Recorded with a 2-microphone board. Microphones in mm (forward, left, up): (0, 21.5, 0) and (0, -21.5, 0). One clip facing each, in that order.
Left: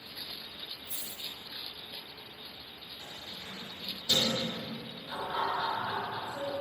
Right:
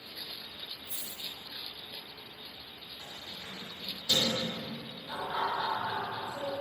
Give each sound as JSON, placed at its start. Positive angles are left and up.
{"t": 0.9, "sound": "a dropped coin", "side_deg": -35, "distance_m": 1.5}
{"t": 3.0, "sound": "keys jangling", "side_deg": -25, "distance_m": 1.6}
{"t": 5.1, "sound": "laughter", "side_deg": -15, "distance_m": 2.0}